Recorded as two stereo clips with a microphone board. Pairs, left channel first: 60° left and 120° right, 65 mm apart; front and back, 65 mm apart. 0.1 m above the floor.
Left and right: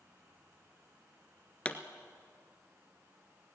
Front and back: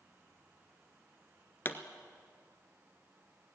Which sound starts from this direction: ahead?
A pop, at 1.6 s.